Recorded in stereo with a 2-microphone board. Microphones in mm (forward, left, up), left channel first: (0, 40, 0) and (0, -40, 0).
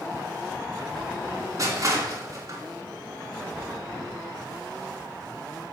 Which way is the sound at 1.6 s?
45° right (ahead or behind).